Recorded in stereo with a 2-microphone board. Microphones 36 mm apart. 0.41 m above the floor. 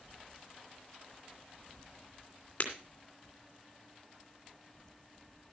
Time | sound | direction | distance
2.6 | breaking glass | 40° left (ahead or behind) | 2.5 m